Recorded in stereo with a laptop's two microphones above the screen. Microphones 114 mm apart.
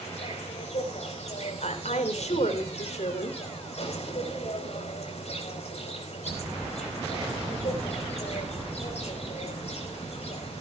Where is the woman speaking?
80° left, 3 m.